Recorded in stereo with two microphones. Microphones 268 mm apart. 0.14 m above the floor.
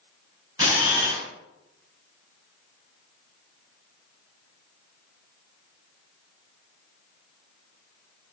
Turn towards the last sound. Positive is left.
turn(degrees=-15)  # may be behind; listen again after turning